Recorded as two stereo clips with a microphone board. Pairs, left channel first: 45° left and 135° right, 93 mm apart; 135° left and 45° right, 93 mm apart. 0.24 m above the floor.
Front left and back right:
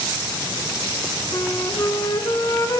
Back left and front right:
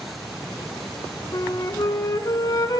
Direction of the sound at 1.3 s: 95° left.